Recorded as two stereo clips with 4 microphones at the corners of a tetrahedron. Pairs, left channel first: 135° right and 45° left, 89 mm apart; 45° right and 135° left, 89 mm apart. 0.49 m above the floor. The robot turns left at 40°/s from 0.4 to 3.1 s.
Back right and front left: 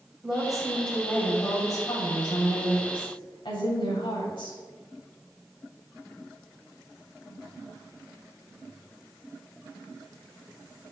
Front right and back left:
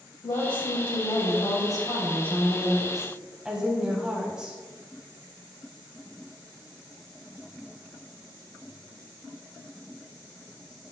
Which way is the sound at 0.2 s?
40° right.